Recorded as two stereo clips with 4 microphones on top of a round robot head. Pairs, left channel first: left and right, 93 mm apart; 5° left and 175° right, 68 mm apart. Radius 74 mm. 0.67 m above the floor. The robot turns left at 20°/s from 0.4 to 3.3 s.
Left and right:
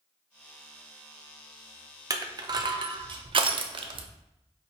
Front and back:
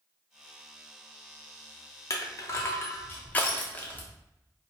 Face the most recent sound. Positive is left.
turn(degrees=-65)